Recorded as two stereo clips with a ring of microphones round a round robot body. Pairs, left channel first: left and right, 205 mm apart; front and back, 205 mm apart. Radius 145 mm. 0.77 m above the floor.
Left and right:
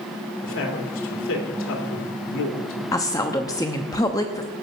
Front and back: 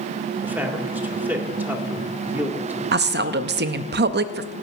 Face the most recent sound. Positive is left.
turn(degrees=165)